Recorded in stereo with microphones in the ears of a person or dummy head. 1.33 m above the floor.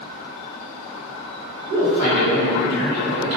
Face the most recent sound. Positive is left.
turn(degrees=-60)  # may be behind; listen again after turning